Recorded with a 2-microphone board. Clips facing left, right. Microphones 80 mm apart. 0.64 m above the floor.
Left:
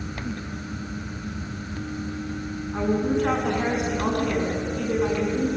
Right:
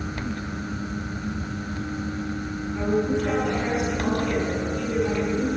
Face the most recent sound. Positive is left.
turn(degrees=55)  # may be behind; listen again after turning